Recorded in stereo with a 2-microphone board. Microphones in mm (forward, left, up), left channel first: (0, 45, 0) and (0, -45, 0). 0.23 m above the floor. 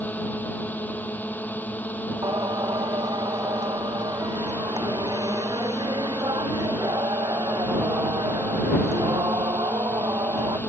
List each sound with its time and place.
0.0 s a drone: 20° left (ahead or behind)
2.2 s singing: 45° right (ahead or behind)